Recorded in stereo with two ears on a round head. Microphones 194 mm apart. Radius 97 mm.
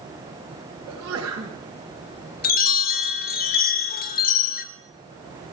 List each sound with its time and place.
0.9 s a sneeze: 65° right (ahead or behind), 4 m
2.4 s a chime: 45° left (ahead or behind), 1.8 m